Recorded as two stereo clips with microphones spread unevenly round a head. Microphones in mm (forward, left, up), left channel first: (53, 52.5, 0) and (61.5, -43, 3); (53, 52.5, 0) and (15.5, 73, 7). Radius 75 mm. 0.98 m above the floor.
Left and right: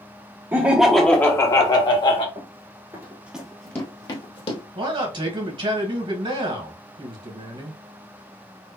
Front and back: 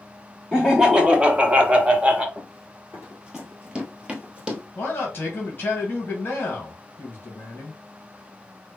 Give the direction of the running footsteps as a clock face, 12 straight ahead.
4 o'clock.